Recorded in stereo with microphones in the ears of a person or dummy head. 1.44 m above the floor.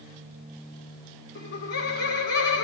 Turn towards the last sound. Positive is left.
turn(degrees=65)  # may be behind; listen again after turning